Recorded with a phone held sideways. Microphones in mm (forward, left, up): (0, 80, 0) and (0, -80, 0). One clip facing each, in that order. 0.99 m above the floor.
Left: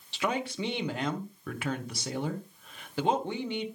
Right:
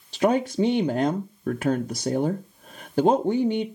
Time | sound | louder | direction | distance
0.1 | a woman speaking | right 10 dB | 45° right (ahead or behind) | 0.6 m